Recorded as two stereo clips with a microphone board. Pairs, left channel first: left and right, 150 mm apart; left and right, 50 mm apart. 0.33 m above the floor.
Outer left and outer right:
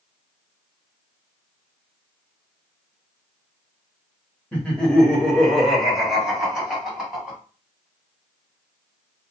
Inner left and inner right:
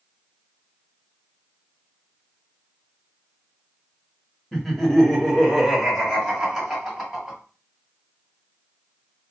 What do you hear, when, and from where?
4.5 s laughter: 10° left (ahead or behind), 0.9 m; by 7.4 s 5° right (ahead or behind), 2 m